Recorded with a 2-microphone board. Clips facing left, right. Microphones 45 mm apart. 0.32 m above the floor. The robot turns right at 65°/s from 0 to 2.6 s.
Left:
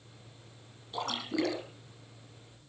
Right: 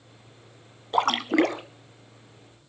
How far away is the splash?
About 1.1 m.